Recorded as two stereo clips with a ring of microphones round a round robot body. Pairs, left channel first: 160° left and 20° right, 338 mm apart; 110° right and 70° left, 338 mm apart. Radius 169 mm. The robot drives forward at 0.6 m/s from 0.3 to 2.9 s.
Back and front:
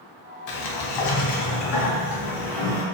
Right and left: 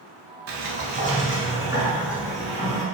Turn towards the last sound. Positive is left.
turn(degrees=160)